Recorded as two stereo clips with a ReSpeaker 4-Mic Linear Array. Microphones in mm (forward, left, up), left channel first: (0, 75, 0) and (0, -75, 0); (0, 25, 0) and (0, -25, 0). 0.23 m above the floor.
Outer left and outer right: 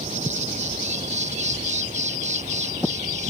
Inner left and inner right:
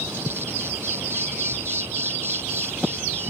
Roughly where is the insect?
Right.